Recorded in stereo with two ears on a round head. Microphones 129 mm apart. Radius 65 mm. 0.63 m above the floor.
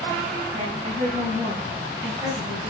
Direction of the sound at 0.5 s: 30° right (ahead or behind).